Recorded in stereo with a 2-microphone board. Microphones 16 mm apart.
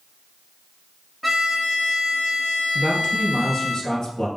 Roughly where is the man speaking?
Left.